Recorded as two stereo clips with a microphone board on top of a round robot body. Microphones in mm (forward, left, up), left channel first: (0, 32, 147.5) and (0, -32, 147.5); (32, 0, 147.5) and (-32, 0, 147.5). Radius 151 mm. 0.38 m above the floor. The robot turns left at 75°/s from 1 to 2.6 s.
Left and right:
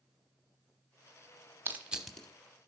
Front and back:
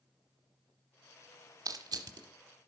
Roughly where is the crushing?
Behind right.